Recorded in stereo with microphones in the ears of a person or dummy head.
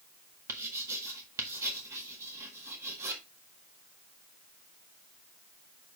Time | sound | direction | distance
0.5 | writing | 15° right (ahead or behind) | 1.6 m